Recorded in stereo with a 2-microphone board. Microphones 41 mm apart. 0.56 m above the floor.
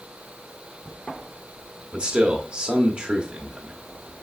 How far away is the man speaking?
About 0.8 m.